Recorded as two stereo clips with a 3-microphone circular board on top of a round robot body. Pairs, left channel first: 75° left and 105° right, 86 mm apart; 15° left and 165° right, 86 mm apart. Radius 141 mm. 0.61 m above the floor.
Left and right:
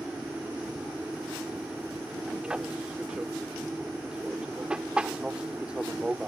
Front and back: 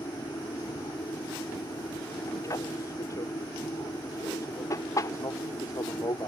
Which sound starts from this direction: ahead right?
An aircraft, at 0.0 s.